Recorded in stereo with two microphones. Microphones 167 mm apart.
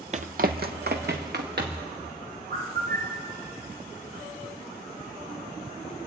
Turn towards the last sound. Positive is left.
turn(degrees=-70)  # may be behind; listen again after turning